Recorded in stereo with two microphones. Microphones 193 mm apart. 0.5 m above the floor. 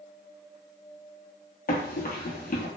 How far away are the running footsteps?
About 0.7 m.